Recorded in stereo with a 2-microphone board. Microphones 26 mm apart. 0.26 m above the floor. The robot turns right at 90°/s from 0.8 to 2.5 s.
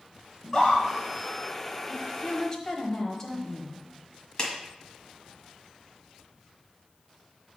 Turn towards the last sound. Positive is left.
turn(degrees=25)  # may be behind; listen again after turning